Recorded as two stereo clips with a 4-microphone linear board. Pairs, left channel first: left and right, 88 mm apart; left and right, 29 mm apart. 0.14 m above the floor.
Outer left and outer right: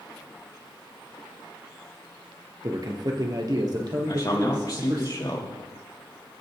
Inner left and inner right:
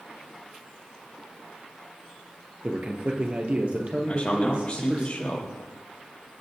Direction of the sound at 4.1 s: 45° left (ahead or behind).